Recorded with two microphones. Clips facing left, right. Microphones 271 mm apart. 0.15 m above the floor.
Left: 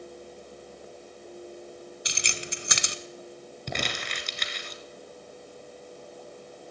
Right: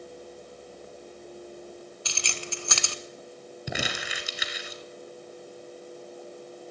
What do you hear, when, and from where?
2.0 s keys jangling: 20° left (ahead or behind), 1.0 m
3.7 s crumpling: 5° right (ahead or behind), 1.6 m